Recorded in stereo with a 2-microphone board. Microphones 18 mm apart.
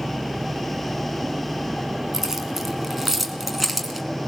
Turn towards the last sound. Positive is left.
turn(degrees=-10)  # may be behind; listen again after turning